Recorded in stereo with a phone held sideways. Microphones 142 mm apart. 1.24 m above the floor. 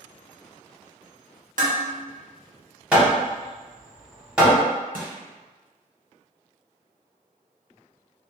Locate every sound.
1.6 s dishes clattering: 65° right (ahead or behind), 0.7 m
2.9 s hammering: 10° right (ahead or behind), 0.8 m
4.9 s crushing: 75° right (ahead or behind), 1.0 m